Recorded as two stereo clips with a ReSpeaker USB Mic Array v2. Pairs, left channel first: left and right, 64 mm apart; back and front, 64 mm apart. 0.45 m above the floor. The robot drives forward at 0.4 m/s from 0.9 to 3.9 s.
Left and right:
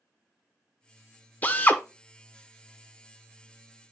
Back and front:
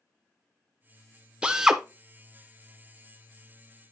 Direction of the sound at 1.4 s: 60° left.